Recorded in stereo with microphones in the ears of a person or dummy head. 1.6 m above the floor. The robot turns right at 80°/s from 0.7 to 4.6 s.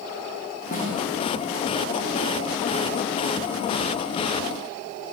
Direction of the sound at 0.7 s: 35° left (ahead or behind).